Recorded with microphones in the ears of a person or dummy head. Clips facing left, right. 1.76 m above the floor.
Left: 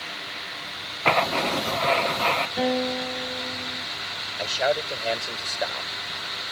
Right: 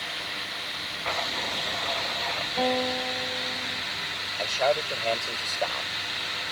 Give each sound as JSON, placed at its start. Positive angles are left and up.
{"t": 1.1, "sound": "writing", "side_deg": 85}
{"t": 2.6, "sound": "a guitar", "side_deg": 20}
{"t": 4.4, "sound": "a man speaking", "side_deg": 10}